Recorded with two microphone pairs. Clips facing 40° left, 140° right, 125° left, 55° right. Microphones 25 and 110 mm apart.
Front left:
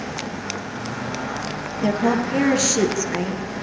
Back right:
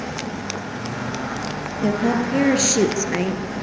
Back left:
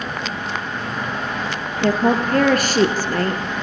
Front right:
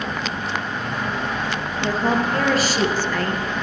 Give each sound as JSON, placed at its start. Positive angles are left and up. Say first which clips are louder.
{"t": 1.8, "sound": "a woman speaking", "louder": "even, back left 4 dB", "azimuth_deg": 110, "distance_m": 3.0}